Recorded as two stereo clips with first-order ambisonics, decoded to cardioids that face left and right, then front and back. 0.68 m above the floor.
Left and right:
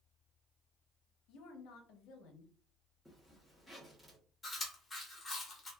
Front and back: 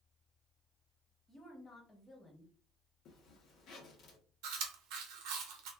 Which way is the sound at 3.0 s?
5° right.